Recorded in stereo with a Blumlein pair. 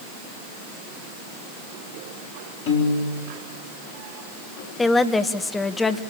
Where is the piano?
50° left, 4.5 m.